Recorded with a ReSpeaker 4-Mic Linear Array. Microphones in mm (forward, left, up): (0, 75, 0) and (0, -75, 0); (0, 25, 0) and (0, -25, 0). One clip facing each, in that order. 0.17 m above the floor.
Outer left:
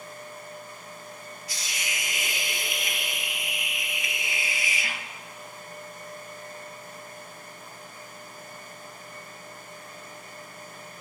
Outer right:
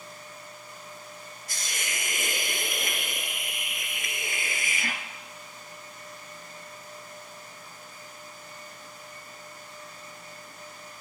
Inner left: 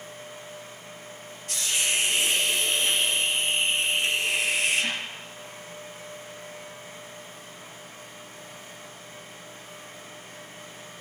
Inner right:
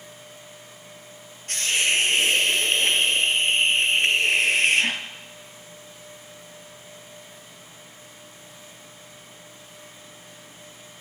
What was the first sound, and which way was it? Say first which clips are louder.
A hiss: outer right 1 dB, inner right 5 dB; 50° right (ahead or behind).